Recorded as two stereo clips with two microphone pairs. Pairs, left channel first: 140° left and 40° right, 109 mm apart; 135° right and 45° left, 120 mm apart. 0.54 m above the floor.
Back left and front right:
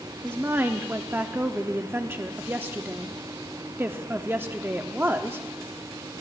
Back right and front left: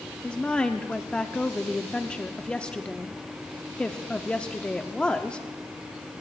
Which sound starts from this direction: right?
A woman speaking, at 0.2 s.